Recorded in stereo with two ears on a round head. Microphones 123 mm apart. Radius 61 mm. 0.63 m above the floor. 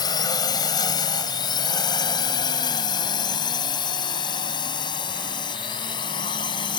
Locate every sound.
0.0 s a drone: 30° left (ahead or behind); by 6.8 s 35° left (ahead or behind)